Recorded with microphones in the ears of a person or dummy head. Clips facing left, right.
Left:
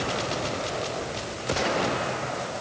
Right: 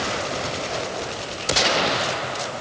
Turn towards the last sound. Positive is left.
No sound to turn to.